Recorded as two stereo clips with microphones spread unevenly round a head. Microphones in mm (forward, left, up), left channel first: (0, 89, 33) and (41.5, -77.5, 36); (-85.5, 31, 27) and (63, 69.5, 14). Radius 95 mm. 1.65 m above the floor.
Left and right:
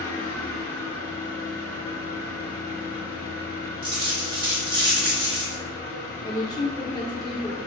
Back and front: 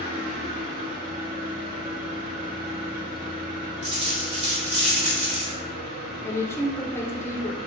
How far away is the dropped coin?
About 1.9 m.